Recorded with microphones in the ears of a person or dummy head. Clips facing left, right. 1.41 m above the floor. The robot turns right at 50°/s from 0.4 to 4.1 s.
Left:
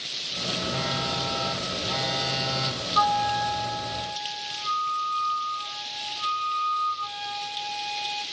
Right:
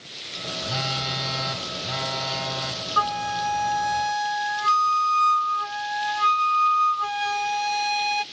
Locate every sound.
0.6 s a phone buzzing: 70° right, 6.5 m; by 2.8 s 40° left, 6.5 m
3.0 s a flute: 145° right, 0.5 m; by 8.2 s 85° right, 0.5 m